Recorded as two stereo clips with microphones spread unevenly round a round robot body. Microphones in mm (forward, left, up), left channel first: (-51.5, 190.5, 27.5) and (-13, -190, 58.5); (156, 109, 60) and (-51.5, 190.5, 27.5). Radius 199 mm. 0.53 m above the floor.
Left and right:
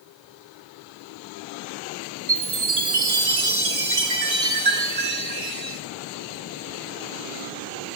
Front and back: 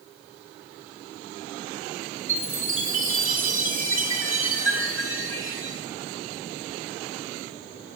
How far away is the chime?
About 1.7 m.